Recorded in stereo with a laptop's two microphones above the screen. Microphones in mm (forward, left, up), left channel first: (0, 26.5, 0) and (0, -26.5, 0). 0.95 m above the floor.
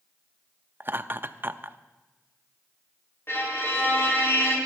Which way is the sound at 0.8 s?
40° right (ahead or behind).